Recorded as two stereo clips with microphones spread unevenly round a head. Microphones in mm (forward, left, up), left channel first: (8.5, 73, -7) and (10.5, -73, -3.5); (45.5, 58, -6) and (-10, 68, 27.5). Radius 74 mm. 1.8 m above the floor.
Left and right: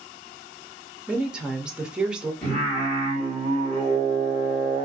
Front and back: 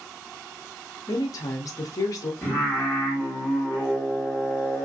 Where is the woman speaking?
15° right, 0.6 m.